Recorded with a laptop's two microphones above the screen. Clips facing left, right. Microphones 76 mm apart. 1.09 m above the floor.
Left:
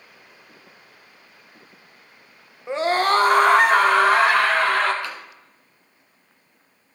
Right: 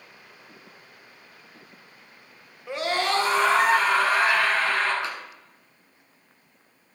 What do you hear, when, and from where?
2.7 s a scream: 25° left (ahead or behind), 1.0 m; by 4.9 s 75° left (ahead or behind), 2.5 m
5.0 s tapping: 20° right (ahead or behind), 1.7 m